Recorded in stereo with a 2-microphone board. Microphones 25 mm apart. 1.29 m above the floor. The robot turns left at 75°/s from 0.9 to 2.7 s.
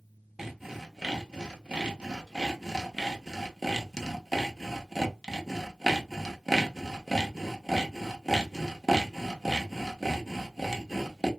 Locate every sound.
0.4 s sawing: 15° right (ahead or behind), 0.6 m; by 11.3 s 10° right (ahead or behind), 0.6 m